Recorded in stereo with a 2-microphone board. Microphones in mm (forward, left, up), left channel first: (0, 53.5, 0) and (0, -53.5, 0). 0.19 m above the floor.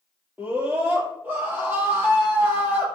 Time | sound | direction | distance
0.4 | a scream | 20° right (ahead or behind) | 6.5 m